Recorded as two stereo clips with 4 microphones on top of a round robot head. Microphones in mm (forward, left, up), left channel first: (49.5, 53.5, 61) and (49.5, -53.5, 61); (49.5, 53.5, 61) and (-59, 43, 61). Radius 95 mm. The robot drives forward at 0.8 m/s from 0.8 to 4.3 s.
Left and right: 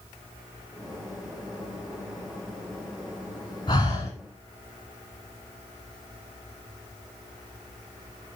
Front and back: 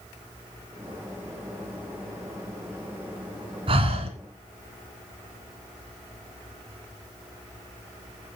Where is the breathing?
155° left, 1.8 m; by 4.1 s 160° left, 2 m.